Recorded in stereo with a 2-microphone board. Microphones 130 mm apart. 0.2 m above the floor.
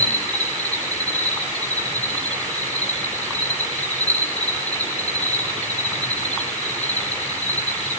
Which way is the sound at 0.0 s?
65° left (ahead or behind).